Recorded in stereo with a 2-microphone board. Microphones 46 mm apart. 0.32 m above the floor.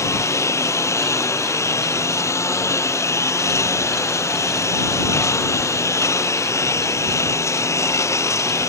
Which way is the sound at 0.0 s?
85° left.